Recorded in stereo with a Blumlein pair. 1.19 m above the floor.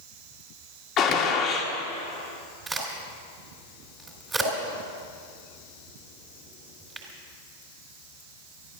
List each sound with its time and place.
1.0 s a gunshot: 30° left, 2 m
2.7 s a crack: 15° right, 4 m